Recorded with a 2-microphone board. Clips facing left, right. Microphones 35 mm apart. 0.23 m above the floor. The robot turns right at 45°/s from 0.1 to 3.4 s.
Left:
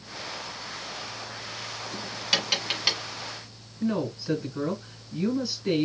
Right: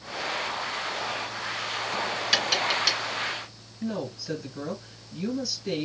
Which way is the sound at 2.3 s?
Centre (ahead or behind).